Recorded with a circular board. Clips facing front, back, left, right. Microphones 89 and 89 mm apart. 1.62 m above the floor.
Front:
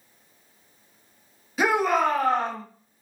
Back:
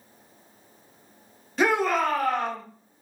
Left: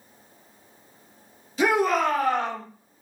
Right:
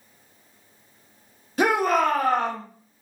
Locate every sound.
1.6 s a shout: 85° right, 0.9 m; by 2.6 s 50° right, 1.1 m